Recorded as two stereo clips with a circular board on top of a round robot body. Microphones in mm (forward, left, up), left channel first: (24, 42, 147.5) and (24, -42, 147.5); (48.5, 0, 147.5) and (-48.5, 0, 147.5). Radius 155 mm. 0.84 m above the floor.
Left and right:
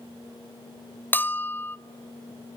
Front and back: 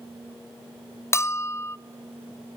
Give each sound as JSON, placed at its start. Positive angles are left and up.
{"t": 1.1, "sound": "a bell", "azimuth_deg": 40, "distance_m": 0.6}